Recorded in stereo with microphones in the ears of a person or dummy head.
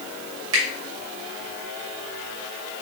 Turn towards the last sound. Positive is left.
turn(degrees=-75)  # may be behind; listen again after turning